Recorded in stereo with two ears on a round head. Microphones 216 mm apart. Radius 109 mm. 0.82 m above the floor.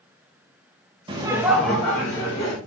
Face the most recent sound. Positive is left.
turn(degrees=15)  # may be behind; listen again after turning